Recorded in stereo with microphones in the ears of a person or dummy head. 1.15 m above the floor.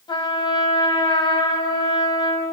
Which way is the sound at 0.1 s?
25° left (ahead or behind).